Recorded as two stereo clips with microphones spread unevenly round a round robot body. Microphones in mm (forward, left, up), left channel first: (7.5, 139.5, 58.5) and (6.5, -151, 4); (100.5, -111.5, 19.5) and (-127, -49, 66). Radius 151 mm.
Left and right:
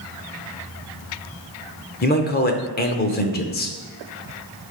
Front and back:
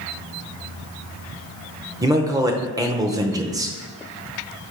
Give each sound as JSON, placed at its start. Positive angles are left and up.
{"t": 2.0, "sound": "a man speaking", "azimuth_deg": 85, "distance_m": 0.8}